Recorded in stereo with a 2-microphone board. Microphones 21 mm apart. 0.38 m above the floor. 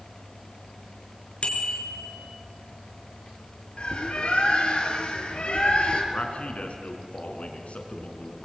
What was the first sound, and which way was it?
A bicycle bell, 55° left (ahead or behind).